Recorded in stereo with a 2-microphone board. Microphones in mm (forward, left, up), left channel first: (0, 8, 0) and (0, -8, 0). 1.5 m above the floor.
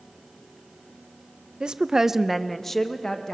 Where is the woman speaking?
70° right (ahead or behind), 0.9 m; by 3.4 s 35° left (ahead or behind), 1.7 m.